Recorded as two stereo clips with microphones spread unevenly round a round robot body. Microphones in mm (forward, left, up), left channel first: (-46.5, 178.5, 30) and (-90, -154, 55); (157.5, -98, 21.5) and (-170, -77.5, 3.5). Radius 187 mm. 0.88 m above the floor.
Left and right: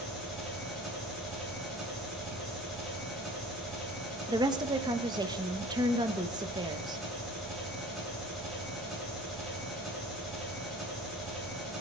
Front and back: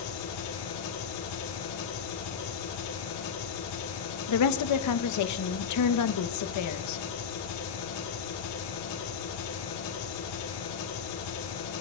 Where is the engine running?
5° right, 8.5 m.